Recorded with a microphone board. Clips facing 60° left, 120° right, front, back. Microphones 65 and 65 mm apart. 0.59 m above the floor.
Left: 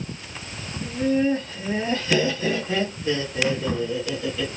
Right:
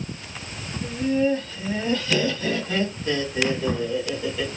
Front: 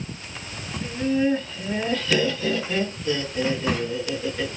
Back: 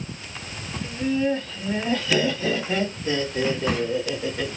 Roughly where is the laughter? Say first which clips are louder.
Left 1 dB, front 1 dB; ahead left.